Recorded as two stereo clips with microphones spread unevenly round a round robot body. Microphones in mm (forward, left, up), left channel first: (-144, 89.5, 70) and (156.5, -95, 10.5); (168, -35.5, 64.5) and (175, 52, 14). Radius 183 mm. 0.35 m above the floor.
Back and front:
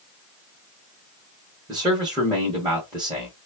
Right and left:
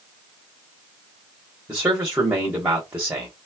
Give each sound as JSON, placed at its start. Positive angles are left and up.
{"t": 1.7, "sound": "a man speaking", "azimuth_deg": 35, "distance_m": 1.3}